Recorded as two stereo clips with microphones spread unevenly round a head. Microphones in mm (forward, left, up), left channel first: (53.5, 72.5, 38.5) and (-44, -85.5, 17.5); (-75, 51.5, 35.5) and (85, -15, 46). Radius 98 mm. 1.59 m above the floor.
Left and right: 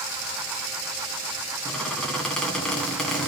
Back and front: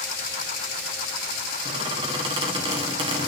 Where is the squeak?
15° right, 1.6 m.